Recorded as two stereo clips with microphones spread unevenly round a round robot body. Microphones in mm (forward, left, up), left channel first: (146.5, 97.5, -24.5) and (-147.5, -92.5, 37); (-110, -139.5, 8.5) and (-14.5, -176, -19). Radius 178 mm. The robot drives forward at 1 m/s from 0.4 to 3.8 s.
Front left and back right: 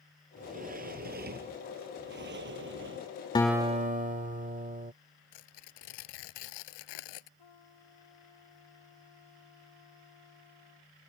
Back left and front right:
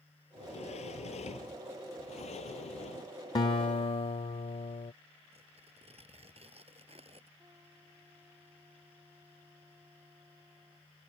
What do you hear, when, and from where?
0.4 s a sliding door: 145° left; by 3.1 s 155° left
3.4 s a guitar: 115° left; by 4.9 s 145° left
5.3 s tearing paper: 50° left
7.4 s a trumpet: 60° left